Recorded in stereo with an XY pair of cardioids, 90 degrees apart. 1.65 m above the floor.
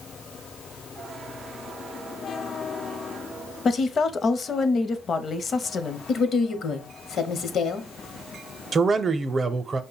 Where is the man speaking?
45° right, 0.7 m.